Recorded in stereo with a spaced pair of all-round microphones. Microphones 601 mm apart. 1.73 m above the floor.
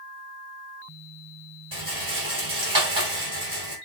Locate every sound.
1.7 s a rattle: 35° right (ahead or behind), 4 m